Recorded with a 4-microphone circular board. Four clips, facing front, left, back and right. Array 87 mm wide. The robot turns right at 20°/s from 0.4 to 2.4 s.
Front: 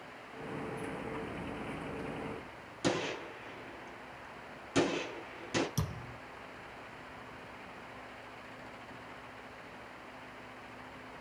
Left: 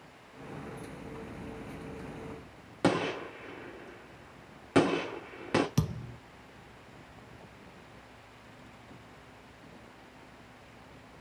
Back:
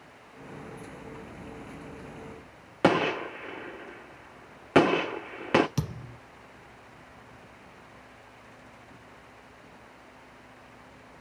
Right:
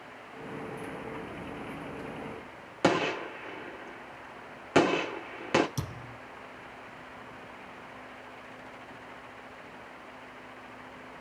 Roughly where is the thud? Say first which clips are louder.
Left 5 dB, back 5 dB; behind left.